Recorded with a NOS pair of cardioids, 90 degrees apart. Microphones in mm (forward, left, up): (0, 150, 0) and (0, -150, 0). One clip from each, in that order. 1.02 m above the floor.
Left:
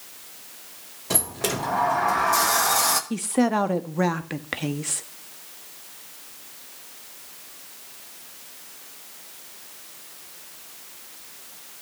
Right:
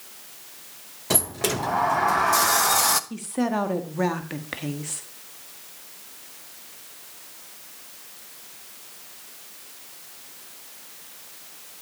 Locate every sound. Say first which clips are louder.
1.1 s a sliding door: right 1 dB; 20° right, 1.0 m
3.1 s a woman speaking: left 4 dB; 35° left, 1.4 m